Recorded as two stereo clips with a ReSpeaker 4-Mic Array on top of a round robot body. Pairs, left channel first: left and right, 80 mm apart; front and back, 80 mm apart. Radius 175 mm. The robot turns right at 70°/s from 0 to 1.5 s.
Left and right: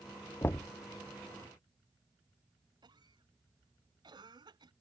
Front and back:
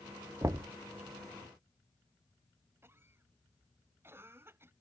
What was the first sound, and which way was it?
Knocking, 140° left.